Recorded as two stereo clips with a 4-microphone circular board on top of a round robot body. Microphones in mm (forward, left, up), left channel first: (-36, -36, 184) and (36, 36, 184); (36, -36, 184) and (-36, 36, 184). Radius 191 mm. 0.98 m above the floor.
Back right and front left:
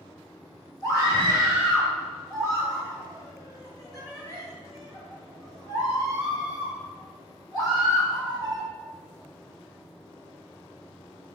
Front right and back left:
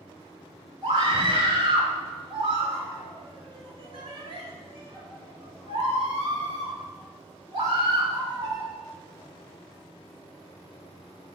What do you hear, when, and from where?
0.8 s a scream: 170° left, 3 m